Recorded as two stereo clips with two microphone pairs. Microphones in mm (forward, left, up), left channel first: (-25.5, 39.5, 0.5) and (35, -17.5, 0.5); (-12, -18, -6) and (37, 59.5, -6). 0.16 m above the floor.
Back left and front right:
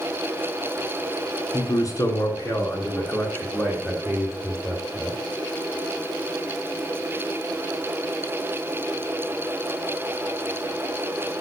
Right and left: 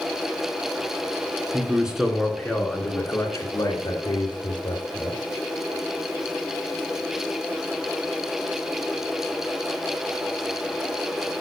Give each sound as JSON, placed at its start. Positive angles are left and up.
{"t": 1.5, "sound": "a man speaking", "azimuth_deg": 125, "distance_m": 2.5}